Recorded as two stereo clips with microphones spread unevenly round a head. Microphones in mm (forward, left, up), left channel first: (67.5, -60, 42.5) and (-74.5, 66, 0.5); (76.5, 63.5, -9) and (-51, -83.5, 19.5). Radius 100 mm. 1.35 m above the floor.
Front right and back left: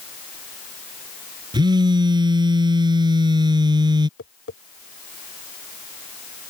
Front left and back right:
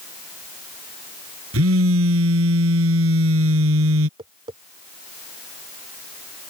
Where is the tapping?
70° right.